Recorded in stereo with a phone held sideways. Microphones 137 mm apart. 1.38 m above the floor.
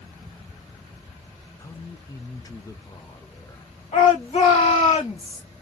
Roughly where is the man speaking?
Left.